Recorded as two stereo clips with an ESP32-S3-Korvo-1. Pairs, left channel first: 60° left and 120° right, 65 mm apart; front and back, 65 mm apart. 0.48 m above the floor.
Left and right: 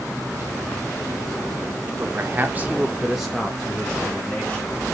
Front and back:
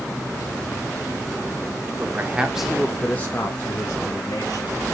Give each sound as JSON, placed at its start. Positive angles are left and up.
{"t": 2.0, "sound": "a man speaking", "azimuth_deg": -145, "distance_m": 1.5}